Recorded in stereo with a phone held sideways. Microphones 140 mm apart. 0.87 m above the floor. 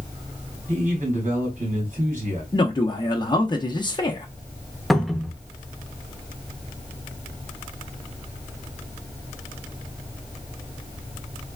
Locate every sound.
0.7 s a man speaking: 60° right (ahead or behind), 2.5 m
2.5 s a man speaking: 30° left (ahead or behind), 0.6 m
4.9 s a cupboard door: centre (ahead or behind), 0.5 m